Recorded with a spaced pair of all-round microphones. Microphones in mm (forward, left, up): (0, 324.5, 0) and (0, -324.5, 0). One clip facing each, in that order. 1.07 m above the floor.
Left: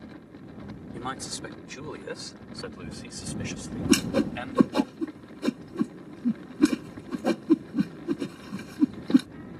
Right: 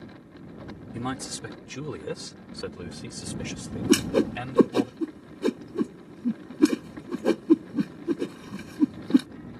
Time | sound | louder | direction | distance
0.9 | a man speaking | right 6 dB | 50° right (ahead or behind) | ?
3.9 | a whoosh | right 2 dB | 15° left (ahead or behind) | ?